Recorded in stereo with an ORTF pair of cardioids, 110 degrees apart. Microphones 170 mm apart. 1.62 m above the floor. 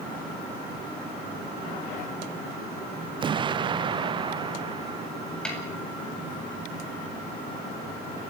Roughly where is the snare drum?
Ahead.